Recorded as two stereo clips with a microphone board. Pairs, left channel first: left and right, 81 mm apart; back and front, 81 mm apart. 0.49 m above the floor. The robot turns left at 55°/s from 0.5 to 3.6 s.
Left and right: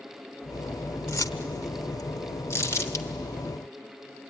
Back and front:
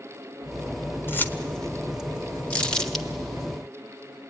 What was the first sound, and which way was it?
Keys jangling, 130° left.